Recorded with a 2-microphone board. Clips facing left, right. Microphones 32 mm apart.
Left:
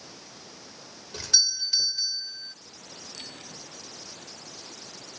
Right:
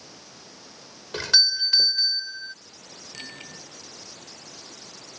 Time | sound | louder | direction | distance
1.1 | a doorbell | right 5 dB | 45° right (ahead or behind) | ?
3.1 | a bicycle bell | right 5 dB | 55° right (ahead or behind) | ?